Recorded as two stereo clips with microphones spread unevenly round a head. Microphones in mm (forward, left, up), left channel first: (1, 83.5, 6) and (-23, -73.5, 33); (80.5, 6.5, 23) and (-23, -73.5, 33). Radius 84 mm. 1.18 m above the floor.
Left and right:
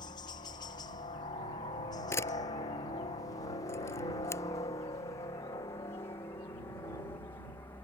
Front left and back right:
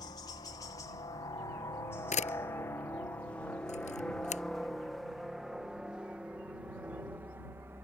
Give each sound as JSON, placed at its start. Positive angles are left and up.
{"t": 0.0, "sound": "a helicopter", "azimuth_deg": 65}
{"t": 2.1, "sound": "a camera shutter", "azimuth_deg": 5}